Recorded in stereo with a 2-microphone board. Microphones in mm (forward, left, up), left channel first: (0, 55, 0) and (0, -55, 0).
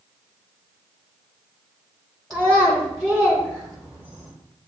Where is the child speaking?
5° left (ahead or behind), 0.8 m.